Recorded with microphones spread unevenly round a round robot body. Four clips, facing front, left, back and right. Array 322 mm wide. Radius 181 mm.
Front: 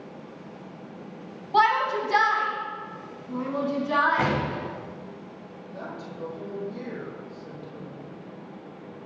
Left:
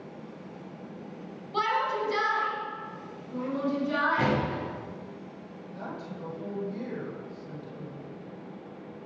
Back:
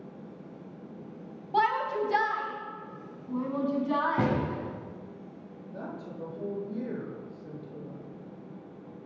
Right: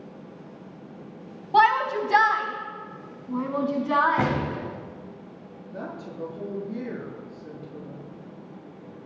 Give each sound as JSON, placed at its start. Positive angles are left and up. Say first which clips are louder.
{"t": 1.5, "sound": "a shout", "louder": "right 8 dB, front 5 dB", "azimuth_deg": -65, "distance_m": 2.5}
{"t": 4.2, "sound": "a gunshot", "louder": "right 2 dB, front 2 dB", "azimuth_deg": -145, "distance_m": 8.0}
{"t": 5.7, "sound": "a woman speaking", "louder": "right 3 dB, front 2 dB", "azimuth_deg": -85, "distance_m": 7.0}